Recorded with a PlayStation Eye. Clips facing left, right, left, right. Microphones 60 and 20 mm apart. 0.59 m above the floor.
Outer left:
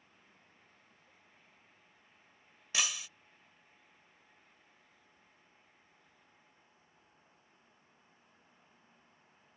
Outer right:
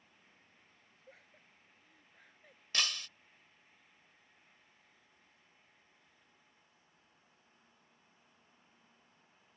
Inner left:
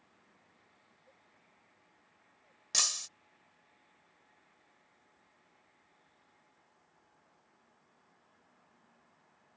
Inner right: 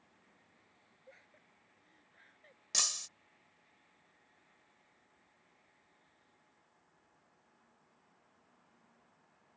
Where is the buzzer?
No buzzer in this recording.